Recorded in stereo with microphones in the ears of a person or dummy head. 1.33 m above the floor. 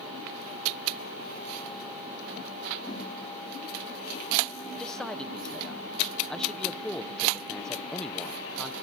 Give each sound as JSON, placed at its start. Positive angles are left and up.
{"t": 2.9, "sound": "a whoosh", "side_deg": 25, "distance_m": 9.0}
{"t": 4.8, "sound": "a man speaking", "side_deg": 5, "distance_m": 0.6}